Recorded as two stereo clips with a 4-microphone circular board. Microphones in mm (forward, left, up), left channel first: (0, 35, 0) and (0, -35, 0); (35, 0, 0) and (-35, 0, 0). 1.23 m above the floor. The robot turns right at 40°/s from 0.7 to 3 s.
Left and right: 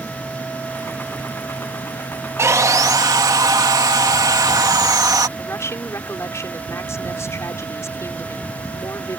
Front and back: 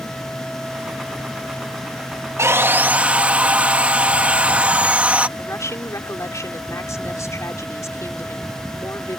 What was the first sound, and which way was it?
Sawing, 135° right.